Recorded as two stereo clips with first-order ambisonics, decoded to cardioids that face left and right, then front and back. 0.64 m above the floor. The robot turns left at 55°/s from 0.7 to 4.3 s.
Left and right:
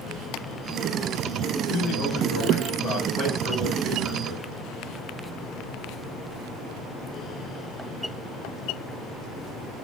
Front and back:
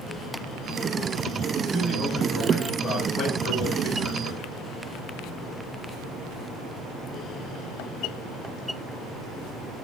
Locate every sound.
1.7 s a man speaking: 120° left, 4 m; by 4.6 s 25° right, 4 m